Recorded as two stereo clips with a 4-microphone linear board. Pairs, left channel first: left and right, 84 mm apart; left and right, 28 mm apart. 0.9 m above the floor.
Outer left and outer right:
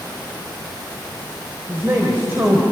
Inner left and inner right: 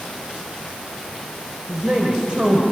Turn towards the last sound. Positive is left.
turn(degrees=-25)  # may be behind; listen again after turning